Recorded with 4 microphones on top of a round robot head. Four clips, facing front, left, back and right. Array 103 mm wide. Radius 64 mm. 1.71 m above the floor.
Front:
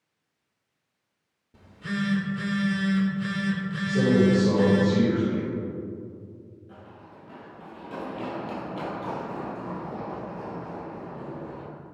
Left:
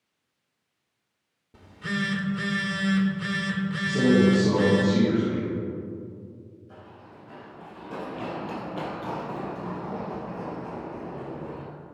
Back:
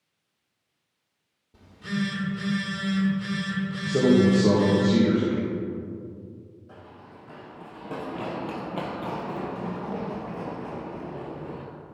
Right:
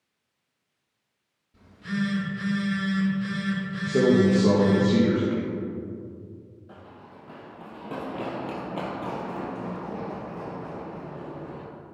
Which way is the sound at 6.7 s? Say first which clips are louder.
Right 1 dB, even; 115° right.